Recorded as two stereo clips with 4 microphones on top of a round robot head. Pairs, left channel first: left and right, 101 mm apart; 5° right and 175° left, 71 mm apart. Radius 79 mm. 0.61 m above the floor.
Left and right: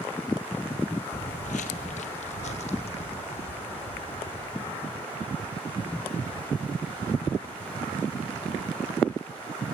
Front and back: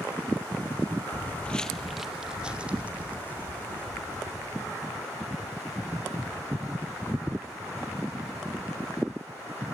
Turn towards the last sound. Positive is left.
turn(degrees=115)